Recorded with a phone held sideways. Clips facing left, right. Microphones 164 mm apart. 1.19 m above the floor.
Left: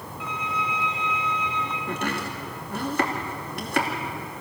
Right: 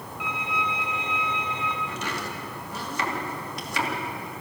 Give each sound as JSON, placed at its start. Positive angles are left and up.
{"t": 0.2, "sound": "a violin", "side_deg": -85, "distance_m": 4.0}
{"t": 1.9, "sound": "chopping", "side_deg": 60, "distance_m": 2.5}